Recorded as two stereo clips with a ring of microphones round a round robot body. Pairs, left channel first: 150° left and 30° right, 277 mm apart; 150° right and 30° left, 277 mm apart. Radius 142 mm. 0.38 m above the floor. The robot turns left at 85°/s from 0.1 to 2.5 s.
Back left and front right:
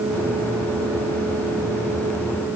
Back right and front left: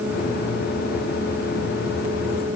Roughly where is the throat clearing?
No throat clearing in this recording.